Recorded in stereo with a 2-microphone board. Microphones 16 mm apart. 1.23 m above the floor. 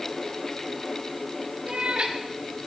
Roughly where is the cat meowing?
Right.